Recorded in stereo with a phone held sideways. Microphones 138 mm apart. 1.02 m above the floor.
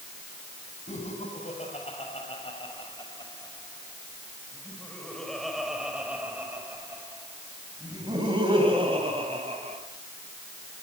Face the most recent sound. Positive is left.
turn(degrees=-40)  # may be behind; listen again after turning